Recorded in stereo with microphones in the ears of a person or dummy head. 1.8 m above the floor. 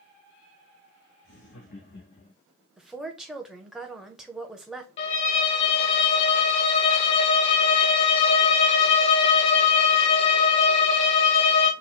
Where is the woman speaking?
10° right (ahead or behind), 0.9 m.